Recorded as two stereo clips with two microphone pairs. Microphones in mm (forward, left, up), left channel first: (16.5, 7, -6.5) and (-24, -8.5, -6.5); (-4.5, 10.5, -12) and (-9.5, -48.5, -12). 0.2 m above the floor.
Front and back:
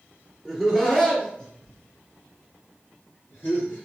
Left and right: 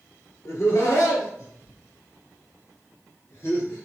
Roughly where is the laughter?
Left.